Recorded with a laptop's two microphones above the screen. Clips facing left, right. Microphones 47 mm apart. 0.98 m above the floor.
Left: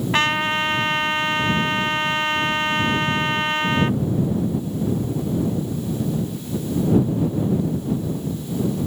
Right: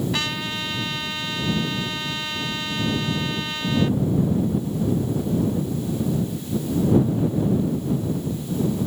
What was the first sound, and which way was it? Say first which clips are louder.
A trumpet: left 7 dB; 45° left (ahead or behind).